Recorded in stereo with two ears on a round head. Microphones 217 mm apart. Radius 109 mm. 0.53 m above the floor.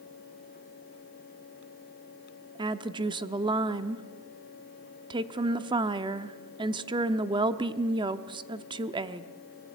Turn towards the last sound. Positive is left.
turn(degrees=-20)  # may be behind; listen again after turning